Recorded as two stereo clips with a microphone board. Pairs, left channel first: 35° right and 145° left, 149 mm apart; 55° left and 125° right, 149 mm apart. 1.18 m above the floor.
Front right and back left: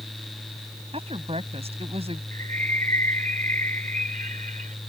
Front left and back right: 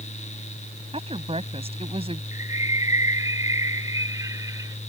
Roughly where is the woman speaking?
Behind.